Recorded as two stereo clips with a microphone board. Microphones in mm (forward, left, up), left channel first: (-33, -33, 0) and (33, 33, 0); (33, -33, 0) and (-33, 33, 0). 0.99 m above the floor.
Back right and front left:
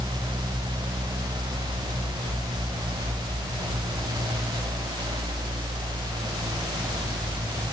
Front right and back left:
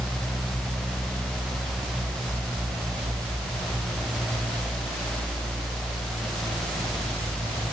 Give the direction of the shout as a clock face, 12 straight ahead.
No shout in this recording.